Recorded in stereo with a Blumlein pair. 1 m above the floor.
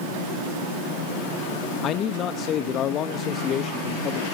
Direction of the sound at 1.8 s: 30° left.